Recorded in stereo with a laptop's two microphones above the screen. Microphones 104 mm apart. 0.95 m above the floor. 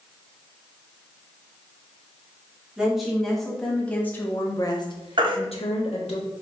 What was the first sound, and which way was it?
A woman speaking, 5° right (ahead or behind).